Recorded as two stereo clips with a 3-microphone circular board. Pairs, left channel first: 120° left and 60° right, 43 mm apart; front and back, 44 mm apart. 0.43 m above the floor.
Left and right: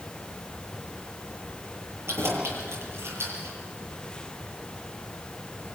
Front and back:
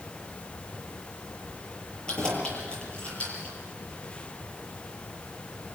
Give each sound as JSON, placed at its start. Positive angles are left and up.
{"t": 2.1, "sound": "keys jangling", "azimuth_deg": -70, "distance_m": 8.0}